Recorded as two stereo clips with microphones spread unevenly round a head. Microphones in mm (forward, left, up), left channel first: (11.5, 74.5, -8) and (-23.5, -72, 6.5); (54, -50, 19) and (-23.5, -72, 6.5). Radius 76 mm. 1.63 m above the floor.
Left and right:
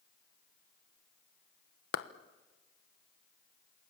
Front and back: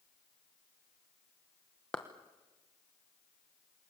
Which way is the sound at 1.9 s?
95° left.